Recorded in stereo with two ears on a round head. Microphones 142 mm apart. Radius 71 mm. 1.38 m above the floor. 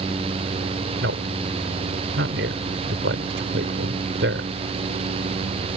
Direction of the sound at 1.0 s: 90° right.